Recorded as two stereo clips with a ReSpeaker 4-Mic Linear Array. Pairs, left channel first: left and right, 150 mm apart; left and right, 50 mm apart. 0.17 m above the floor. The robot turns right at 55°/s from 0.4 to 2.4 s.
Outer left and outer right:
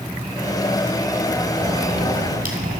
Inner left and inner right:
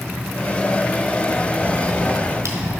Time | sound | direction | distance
1.6 | a crack | 25° right (ahead or behind) | 1.6 m